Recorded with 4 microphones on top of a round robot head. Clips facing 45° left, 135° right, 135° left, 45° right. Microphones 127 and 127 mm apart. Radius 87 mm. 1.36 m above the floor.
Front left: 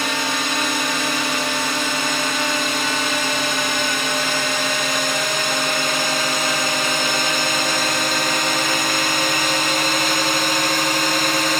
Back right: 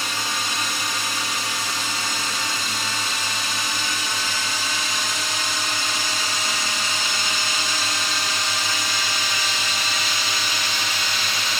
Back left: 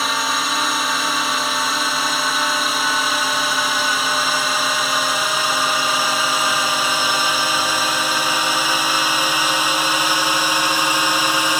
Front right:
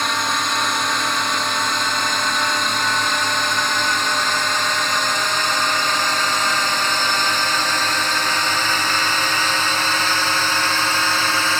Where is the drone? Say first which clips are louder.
Front left 6 dB, even; 50° left; by 11.6 s 60° left.